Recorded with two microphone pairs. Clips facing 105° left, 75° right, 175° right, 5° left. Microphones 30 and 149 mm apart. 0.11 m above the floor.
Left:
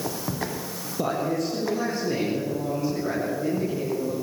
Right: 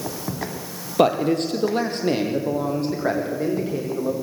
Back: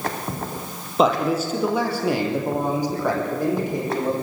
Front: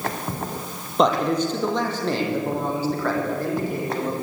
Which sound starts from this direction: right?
A man speaking, at 1.0 s.